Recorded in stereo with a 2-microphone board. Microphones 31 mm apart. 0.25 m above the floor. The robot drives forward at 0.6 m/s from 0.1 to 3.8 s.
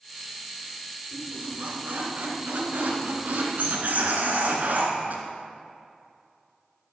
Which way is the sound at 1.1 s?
55° right (ahead or behind).